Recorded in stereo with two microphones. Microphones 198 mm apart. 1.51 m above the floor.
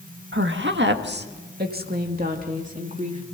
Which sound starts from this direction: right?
A woman speaking, at 0.3 s.